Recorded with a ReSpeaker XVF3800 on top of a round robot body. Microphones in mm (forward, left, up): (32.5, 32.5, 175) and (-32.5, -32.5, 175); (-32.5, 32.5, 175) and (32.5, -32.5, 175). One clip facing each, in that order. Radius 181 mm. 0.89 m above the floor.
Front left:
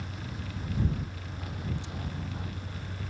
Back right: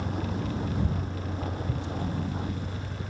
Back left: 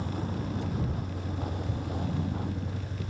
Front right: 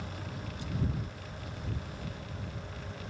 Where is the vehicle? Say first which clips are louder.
Back right 9 dB, back left 8 dB; 175° right; by 3.1 s 155° left.